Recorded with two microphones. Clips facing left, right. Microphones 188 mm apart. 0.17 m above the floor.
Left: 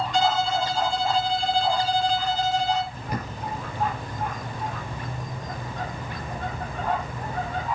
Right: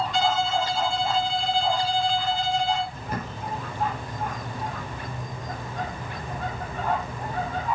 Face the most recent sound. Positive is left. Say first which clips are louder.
# left 1 dB
turn(degrees=15)  # may be behind; listen again after turning